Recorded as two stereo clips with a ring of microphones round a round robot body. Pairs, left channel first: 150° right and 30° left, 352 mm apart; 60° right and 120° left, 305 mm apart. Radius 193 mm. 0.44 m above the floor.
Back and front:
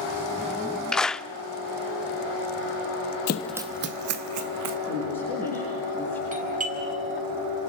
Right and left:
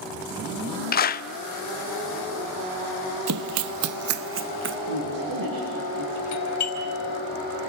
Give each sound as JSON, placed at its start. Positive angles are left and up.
{"t": 0.9, "sound": "a clap", "azimuth_deg": -65, "distance_m": 0.6}
{"t": 3.3, "sound": "running footsteps", "azimuth_deg": 160, "distance_m": 0.6}
{"t": 4.9, "sound": "a woman speaking", "azimuth_deg": 105, "distance_m": 9.5}
{"t": 6.3, "sound": "a doorbell", "azimuth_deg": -35, "distance_m": 4.5}